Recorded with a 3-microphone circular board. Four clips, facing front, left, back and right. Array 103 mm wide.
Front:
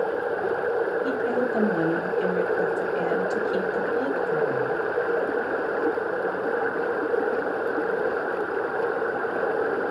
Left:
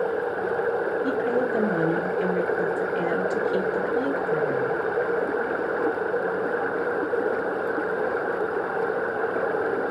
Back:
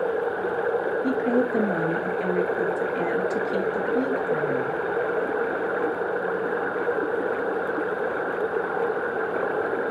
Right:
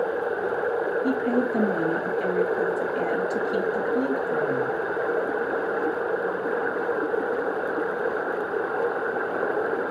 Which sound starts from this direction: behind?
A woman speaking, at 1.0 s.